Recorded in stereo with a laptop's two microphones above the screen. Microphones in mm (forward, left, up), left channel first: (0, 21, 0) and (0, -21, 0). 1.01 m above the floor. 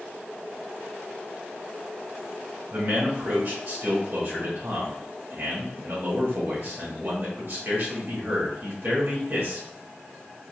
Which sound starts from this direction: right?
A man speaking, at 2.7 s.